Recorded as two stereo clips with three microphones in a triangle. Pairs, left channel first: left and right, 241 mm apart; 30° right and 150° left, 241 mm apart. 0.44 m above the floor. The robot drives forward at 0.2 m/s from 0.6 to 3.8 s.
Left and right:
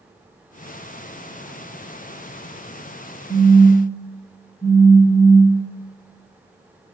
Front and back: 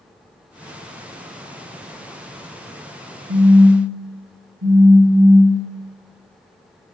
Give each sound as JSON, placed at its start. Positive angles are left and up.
{"t": 3.3, "sound": "a phone buzzing", "azimuth_deg": 140, "distance_m": 0.9}